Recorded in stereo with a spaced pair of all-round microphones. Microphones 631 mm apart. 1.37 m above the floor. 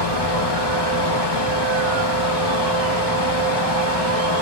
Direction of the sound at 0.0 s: 40° left (ahead or behind).